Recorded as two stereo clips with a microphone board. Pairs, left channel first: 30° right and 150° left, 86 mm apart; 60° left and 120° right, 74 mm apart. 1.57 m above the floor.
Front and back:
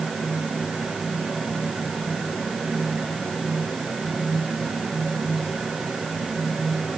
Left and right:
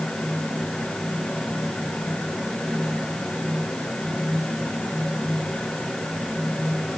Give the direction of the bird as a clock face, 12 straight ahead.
No bird in this recording.